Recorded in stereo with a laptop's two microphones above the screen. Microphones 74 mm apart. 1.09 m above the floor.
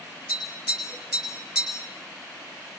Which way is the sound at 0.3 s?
10° right (ahead or behind).